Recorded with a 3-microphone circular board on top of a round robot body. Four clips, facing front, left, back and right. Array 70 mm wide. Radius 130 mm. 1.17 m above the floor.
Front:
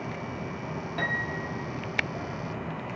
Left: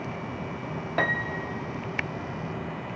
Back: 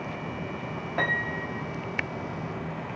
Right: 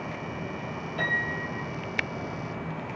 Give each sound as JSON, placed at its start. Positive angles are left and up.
{"t": 1.0, "sound": "a piano", "azimuth_deg": 115, "distance_m": 0.5}